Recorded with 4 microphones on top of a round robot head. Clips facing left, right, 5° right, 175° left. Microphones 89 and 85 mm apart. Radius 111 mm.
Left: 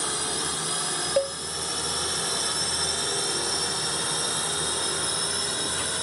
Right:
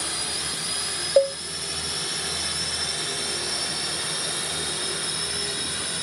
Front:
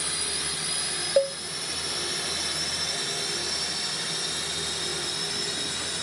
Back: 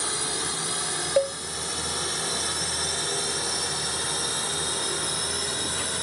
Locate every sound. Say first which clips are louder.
0.0 s a drone: left 3 dB, back 4 dB; 130° left; by 6.0 s 140° left
1.2 s a cowbell: right 7 dB, front 1 dB; 80° right